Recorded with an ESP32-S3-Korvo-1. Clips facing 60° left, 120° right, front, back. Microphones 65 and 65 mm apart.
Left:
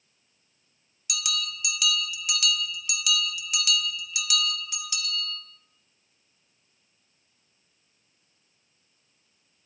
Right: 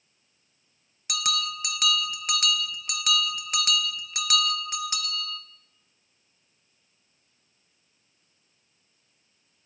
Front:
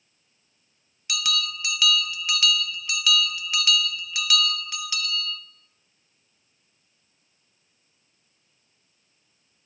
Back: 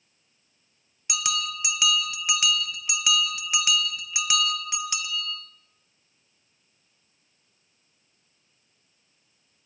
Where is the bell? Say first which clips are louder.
Right 4 dB, even; 115° right, 0.8 m.